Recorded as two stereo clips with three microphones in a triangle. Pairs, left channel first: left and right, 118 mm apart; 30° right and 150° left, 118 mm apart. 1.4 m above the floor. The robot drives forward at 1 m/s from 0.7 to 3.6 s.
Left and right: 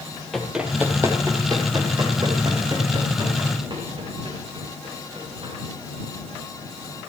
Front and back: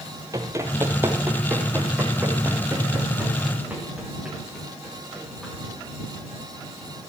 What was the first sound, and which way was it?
Running footsteps, 175° left.